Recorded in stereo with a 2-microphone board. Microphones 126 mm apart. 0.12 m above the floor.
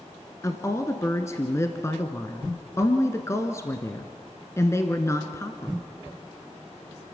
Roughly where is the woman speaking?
Left.